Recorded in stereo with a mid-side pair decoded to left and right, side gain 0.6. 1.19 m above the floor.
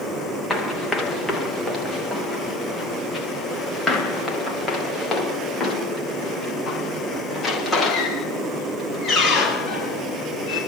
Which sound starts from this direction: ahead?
Running footsteps, at 0.5 s.